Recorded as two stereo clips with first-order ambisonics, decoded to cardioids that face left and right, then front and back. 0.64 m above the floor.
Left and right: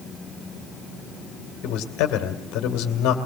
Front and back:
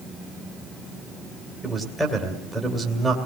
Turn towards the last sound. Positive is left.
turn(degrees=90)